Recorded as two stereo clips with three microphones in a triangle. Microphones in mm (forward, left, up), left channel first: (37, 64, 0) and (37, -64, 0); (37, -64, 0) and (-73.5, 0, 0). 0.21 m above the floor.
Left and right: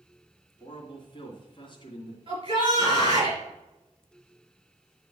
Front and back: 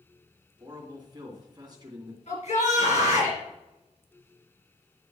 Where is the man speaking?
115° left, 2 m.